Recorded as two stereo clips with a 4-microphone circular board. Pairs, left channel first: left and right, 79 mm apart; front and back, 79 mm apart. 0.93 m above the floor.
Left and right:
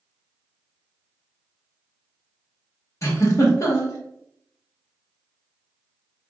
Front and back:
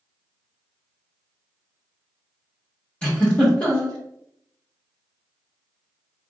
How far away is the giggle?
About 1.0 m.